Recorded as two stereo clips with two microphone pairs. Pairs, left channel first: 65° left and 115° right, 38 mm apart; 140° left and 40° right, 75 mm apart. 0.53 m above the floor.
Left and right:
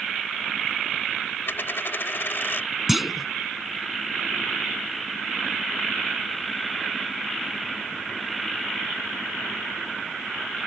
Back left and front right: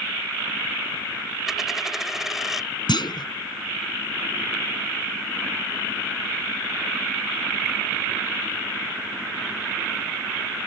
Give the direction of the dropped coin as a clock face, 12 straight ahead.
10 o'clock.